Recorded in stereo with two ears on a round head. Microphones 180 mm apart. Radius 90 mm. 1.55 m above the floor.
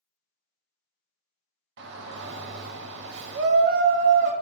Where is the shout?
60° right (ahead or behind), 0.7 m.